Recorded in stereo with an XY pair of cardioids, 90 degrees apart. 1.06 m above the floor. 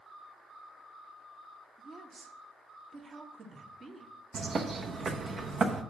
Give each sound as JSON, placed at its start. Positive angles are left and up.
{"t": 1.8, "sound": "a woman speaking", "azimuth_deg": -40, "distance_m": 1.5}
{"t": 4.3, "sound": "a bird", "azimuth_deg": -55, "distance_m": 1.0}